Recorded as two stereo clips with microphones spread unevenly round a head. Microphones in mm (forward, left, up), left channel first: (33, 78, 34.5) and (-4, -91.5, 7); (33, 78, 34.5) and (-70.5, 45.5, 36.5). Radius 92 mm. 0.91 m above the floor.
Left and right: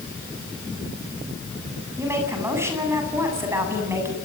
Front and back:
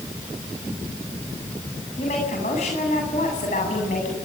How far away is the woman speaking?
About 8.5 m.